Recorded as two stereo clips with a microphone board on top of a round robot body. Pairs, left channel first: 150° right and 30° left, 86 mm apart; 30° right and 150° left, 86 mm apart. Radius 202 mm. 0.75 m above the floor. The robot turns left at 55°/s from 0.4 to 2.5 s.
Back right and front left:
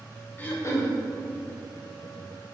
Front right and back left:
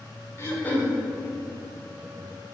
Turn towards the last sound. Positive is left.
turn(degrees=160)